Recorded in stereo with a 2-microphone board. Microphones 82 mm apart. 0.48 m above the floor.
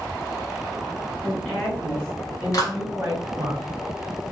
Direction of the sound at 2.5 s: 45° left (ahead or behind).